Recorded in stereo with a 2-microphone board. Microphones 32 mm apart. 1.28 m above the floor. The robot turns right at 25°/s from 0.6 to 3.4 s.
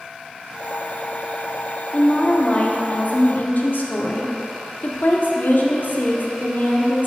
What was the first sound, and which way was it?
A woman speaking, 25° left.